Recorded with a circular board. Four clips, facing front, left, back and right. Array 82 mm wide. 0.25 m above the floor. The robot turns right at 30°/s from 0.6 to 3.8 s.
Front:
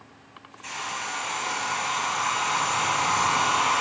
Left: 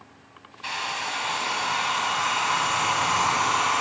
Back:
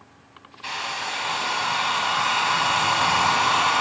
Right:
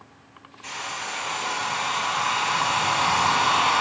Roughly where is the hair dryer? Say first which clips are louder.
Left 3 dB, back 3 dB; behind left.